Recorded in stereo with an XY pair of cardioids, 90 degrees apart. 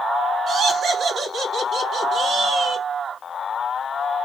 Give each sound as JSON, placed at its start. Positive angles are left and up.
{"t": 0.5, "sound": "laughter", "azimuth_deg": -65, "distance_m": 1.2}